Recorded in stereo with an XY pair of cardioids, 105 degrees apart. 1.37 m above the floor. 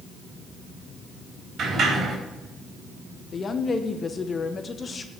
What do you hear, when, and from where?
1.6 s a sliding door: 55° right, 3.5 m
3.3 s a woman speaking: 40° left, 0.8 m